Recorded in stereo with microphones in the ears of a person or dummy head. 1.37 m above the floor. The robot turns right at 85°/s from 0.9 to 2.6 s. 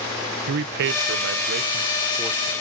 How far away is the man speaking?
About 0.5 m.